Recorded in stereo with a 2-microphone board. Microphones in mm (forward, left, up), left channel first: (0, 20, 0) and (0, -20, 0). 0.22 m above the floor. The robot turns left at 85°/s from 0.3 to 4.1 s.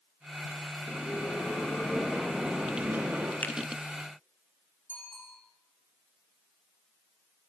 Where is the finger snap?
45° left (ahead or behind), 1.8 m; by 3.5 s 55° left (ahead or behind), 1.8 m.